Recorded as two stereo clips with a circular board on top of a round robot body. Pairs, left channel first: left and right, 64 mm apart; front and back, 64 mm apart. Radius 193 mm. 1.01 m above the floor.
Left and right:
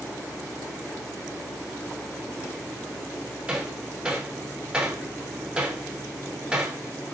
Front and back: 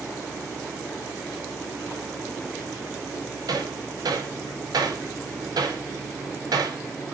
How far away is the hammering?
About 2.5 m.